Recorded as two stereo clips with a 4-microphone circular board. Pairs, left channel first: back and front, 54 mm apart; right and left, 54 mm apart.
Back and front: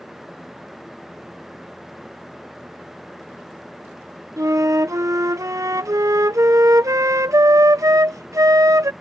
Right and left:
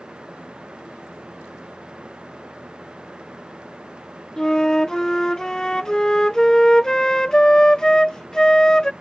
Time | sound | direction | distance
4.4 | a flute | 15° right | ?